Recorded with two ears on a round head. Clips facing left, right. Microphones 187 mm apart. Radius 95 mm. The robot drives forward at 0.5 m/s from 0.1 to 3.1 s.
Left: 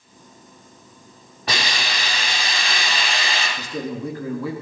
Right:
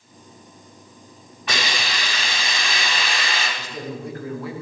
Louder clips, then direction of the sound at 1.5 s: Even; 35° left (ahead or behind).